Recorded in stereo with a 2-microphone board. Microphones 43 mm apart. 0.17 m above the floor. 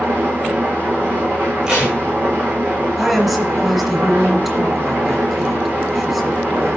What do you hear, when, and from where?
0.0 s an engine running: 50° right (ahead or behind), 6.5 m
1.7 s tape being pulled: 20° right (ahead or behind), 7 m
3.0 s a woman speaking: 5° right (ahead or behind), 3.5 m